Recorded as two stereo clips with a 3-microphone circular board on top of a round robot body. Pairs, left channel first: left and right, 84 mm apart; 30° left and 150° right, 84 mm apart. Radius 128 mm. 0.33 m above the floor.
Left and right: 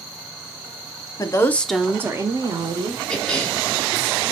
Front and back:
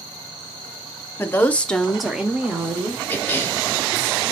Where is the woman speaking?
80° left, 1.0 m; by 3.0 s 80° right, 1.5 m.